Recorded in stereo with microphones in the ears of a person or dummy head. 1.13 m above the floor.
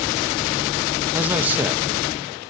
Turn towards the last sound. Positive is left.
turn(degrees=-5)  # may be behind; listen again after turning